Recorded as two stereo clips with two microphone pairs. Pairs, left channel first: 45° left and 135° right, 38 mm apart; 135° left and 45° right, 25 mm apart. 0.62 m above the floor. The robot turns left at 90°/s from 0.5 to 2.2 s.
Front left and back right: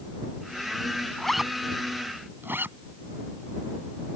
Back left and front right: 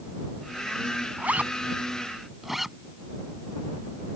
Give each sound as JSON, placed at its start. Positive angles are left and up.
{"t": 1.2, "sound": "a zipper", "azimuth_deg": -35}